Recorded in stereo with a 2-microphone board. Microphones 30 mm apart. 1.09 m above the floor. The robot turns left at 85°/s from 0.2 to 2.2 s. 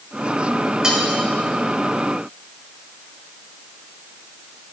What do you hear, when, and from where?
0.8 s cutlery clinking: 25° right (ahead or behind), 2 m; by 1.0 s 40° right (ahead or behind), 2 m